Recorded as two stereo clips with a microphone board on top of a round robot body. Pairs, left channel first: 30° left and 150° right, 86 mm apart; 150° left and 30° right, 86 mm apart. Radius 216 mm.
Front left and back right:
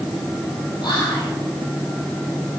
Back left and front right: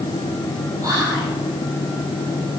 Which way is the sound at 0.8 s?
10° left.